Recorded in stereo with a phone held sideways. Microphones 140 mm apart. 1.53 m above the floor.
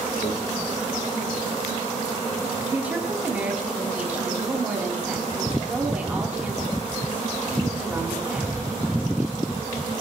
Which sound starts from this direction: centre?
A woman speaking, at 2.7 s.